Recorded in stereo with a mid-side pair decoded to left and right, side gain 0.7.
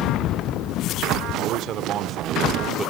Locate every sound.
1.3 s a man speaking: 60° right, 1.3 m; by 2.9 s 15° right, 0.8 m